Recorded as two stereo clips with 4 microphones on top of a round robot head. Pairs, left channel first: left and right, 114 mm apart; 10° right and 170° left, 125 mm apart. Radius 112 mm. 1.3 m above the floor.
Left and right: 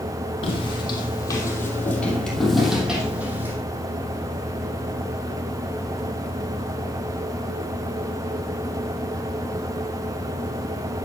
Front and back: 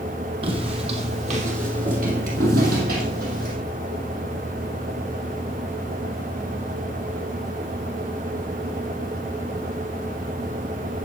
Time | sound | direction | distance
0.4 | footsteps | 130° left | 3.5 m